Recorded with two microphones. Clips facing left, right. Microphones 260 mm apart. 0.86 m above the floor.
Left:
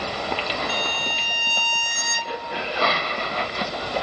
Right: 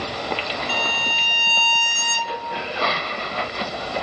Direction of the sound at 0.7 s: 10° right (ahead or behind).